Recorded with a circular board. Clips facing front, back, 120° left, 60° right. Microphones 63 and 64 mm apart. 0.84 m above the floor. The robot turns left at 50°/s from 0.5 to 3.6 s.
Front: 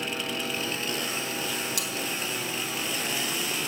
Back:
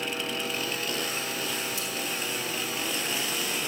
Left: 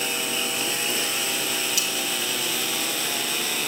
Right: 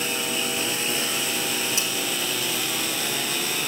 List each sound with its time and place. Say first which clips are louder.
1.8 s cutlery clinking: front 1 dB, even; straight ahead, 3.5 m; by 1.9 s 5° right, 3.5 m